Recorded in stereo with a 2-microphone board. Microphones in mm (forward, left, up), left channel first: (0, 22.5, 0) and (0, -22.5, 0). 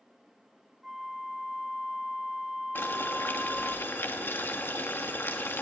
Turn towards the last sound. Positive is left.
turn(degrees=55)  # may be behind; listen again after turning